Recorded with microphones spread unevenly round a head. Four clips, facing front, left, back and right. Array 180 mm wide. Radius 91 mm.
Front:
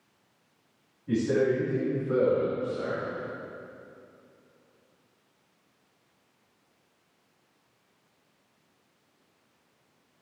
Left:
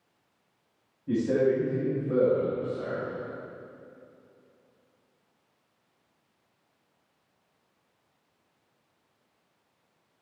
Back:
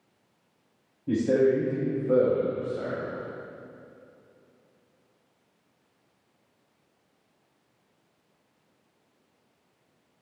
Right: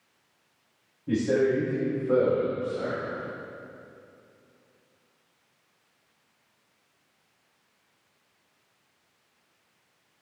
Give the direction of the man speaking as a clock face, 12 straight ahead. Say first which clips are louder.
Right 1 dB, back 3 dB; 6 o'clock.